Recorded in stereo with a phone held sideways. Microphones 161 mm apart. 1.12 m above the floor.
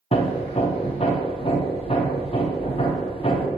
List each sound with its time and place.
0.1 s hammering: 35° left (ahead or behind), 0.7 m